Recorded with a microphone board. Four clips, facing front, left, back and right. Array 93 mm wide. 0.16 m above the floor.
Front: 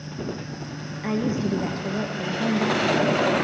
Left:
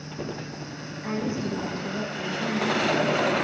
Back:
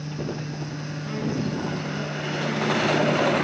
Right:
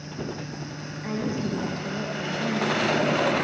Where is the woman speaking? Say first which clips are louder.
Even, front 4 dB; 5° left, 3 m.